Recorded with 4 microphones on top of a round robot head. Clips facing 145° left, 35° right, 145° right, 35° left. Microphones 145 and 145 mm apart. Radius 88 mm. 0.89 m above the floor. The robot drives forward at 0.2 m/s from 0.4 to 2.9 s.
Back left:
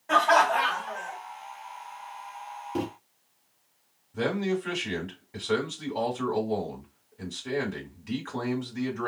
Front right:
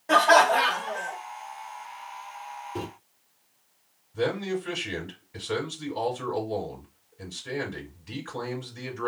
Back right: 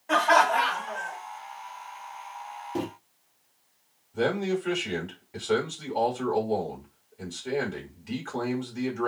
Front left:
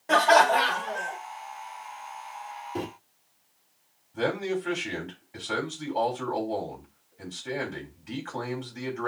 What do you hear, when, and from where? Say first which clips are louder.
0.1 s laughter: front right 3 dB, front left 2 dB; straight ahead, 0.9 m; by 1.2 s 5° right, 0.8 m
2.8 s a microwave: back left 5 dB, back right 2 dB; 155° left, 1.1 m
4.1 s a man speaking: even, back right 2 dB; 155° left, 3 m